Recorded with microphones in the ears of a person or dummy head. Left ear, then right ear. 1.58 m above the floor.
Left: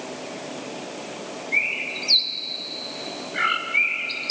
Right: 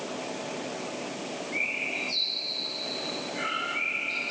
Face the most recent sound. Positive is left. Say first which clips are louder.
# left 6 dB
turn(degrees=50)  # may be behind; listen again after turning